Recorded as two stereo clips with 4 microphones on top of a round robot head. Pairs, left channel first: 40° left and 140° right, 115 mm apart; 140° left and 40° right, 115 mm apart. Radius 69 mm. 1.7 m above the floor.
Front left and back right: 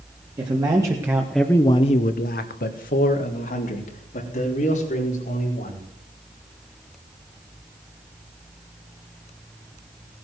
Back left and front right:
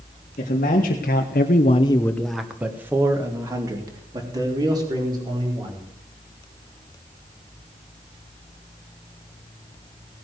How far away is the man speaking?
About 2.0 m.